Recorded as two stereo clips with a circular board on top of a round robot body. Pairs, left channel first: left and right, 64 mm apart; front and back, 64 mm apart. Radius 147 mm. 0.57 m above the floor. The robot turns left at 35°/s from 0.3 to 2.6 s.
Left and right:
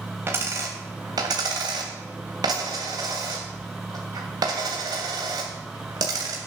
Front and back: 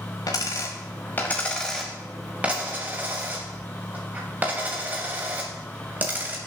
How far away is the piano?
No piano in this recording.